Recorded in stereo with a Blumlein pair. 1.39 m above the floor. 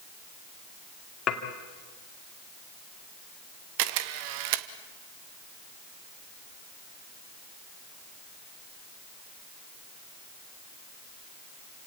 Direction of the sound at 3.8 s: 45° right.